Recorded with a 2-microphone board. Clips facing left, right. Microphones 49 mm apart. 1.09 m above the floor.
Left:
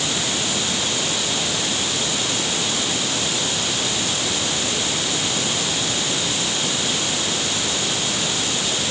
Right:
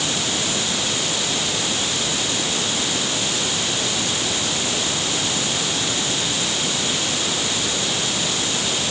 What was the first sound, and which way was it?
Only background noise.